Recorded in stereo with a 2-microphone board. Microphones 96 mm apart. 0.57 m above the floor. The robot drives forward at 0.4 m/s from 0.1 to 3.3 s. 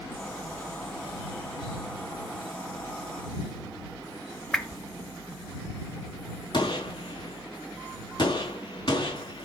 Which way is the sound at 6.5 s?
50° left (ahead or behind).